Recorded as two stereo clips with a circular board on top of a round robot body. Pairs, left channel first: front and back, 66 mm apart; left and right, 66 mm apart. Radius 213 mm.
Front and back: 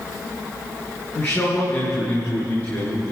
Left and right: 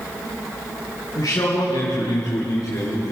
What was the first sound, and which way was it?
A man speaking, 60° left.